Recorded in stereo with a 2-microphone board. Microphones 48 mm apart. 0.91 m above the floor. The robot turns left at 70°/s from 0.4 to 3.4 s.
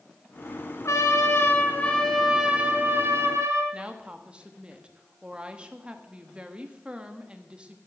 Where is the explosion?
I don't hear an explosion.